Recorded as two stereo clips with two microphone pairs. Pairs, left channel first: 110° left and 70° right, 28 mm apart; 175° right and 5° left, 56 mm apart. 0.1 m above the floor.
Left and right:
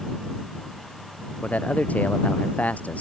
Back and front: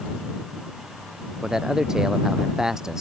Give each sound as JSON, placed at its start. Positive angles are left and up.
{"t": 1.4, "sound": "a man speaking", "azimuth_deg": 85}